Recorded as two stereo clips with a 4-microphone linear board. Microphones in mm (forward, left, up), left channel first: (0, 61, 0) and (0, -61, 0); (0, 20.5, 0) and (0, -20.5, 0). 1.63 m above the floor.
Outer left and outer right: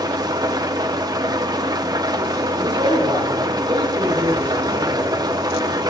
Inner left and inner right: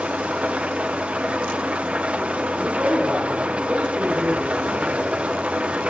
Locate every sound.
0.0 s an engine running: 35° right (ahead or behind), 0.9 m
2.6 s a man speaking: 35° right (ahead or behind), 5.5 m